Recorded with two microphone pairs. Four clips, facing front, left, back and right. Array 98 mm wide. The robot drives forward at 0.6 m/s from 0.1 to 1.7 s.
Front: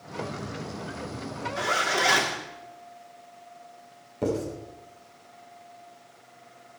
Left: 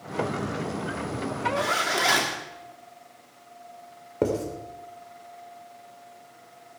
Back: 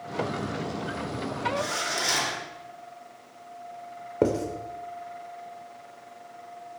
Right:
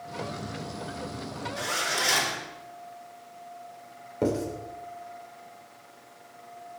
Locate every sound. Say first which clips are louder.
1.6 s a zipper: left 3 dB, front 4 dB; 55° left, 2 m
4.2 s writing: left 1 dB, back 3 dB; 150° left, 3 m